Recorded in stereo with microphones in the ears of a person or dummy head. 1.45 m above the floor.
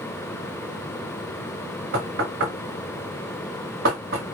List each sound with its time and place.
1.9 s knocking: 60° right (ahead or behind), 1.1 m